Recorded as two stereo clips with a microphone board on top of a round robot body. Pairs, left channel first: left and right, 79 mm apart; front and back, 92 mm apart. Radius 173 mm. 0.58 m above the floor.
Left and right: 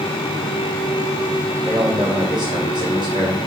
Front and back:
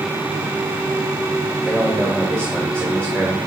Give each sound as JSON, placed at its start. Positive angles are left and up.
{"t": 1.6, "sound": "a man speaking", "azimuth_deg": -115, "distance_m": 2.0}